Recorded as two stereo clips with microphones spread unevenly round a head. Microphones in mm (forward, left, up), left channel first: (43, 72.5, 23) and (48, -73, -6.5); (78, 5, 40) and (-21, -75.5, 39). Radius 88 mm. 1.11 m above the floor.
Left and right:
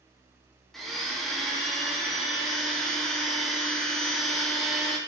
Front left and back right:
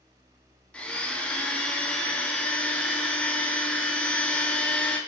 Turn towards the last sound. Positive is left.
turn(degrees=-25)